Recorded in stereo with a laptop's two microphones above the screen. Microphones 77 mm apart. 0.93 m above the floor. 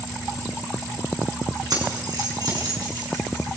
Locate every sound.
1.7 s keys jangling: 60° right (ahead or behind), 7.5 m; by 3.5 s 65° right (ahead or behind), 8.5 m